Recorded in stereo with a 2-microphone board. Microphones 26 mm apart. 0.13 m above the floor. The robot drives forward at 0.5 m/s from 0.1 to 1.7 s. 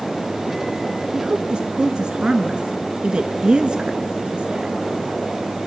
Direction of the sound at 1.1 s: 40° right (ahead or behind).